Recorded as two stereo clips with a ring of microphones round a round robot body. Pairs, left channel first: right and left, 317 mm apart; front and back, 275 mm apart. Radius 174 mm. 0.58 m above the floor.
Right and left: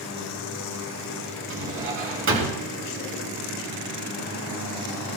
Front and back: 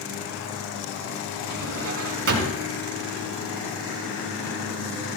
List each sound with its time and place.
1.5 s a drawer: 145° left, 4 m